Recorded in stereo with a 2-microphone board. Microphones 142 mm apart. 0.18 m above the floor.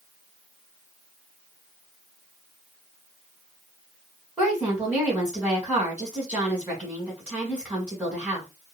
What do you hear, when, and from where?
4.4 s a woman speaking: 10° right (ahead or behind), 1.6 m